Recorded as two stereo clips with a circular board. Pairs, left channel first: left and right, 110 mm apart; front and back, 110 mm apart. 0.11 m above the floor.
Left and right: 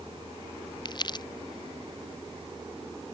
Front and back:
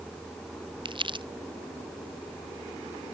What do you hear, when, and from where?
0.8 s crumpling: 140° left